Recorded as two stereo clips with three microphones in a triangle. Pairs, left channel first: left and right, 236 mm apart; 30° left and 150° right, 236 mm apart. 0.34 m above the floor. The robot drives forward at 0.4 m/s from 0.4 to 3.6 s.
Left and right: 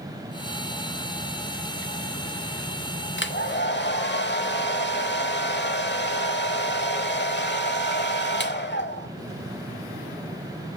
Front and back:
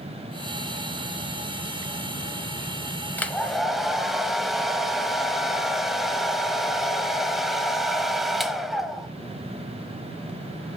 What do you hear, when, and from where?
3.2 s a hair dryer: 110° left, 0.9 m; by 9.1 s 120° left, 1.0 m